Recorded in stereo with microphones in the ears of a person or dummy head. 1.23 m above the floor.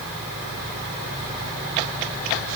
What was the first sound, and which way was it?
Only background noise.